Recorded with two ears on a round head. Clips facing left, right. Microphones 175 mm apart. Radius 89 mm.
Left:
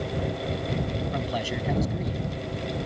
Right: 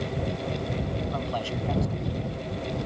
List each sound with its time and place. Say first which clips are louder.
1.1 s a man speaking: left 1 dB; 15° left (ahead or behind)